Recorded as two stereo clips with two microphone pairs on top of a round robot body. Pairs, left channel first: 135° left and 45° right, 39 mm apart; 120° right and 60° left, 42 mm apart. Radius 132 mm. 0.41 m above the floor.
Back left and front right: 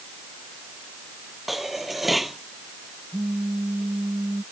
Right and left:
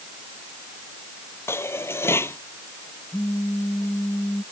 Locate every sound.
1.5 s dishes clattering: 130° right
3.1 s a phone buzzing: 90° right